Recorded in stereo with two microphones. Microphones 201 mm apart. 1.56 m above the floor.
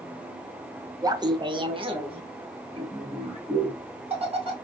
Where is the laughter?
20° right (ahead or behind), 0.5 m; by 4.5 s 30° right (ahead or behind), 2.5 m.